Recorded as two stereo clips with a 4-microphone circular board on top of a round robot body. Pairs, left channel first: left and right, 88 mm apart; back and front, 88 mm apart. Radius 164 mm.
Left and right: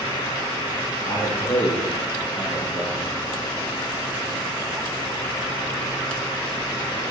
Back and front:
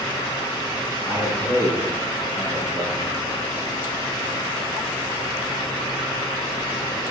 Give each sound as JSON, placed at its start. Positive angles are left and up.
{"t": 1.1, "sound": "a man speaking", "azimuth_deg": 120, "distance_m": 7.5}